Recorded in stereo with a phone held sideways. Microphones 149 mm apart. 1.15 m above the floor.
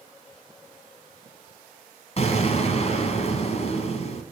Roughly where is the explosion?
Left.